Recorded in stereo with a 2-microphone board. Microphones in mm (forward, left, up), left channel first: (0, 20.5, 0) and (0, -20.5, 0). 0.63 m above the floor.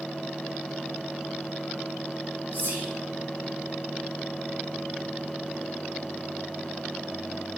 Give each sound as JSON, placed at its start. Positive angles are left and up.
{"t": 2.5, "sound": "whispering", "side_deg": -60, "distance_m": 2.0}